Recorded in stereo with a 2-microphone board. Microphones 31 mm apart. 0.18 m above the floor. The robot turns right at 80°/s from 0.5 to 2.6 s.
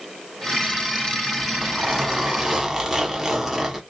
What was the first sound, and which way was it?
A zipper, 20° right (ahead or behind).